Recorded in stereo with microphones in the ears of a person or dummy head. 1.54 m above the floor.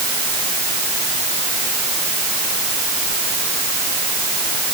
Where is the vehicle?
I don't hear a vehicle.